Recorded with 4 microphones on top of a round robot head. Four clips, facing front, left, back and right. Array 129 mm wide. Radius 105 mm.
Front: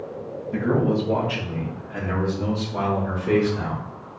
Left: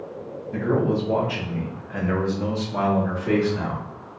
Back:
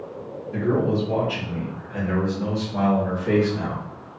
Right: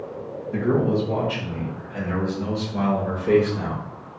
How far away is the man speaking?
About 1.2 m.